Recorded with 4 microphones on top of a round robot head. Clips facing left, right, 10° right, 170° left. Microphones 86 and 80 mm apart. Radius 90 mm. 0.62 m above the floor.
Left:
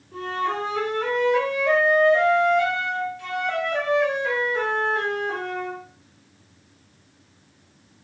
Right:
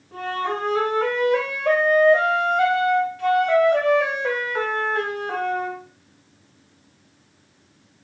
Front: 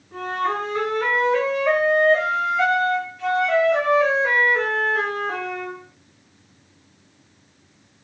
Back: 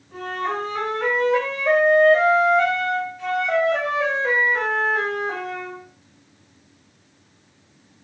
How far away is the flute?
About 1.6 m.